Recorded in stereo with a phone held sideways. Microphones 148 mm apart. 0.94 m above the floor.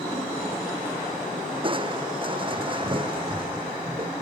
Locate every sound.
1.6 s crushing: 35° right (ahead or behind)